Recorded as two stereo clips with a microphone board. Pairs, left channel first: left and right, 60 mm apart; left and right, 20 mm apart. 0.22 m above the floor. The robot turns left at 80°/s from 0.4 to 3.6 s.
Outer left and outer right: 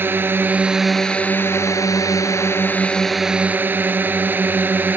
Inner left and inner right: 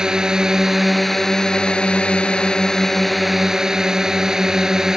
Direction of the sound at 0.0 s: 140° right.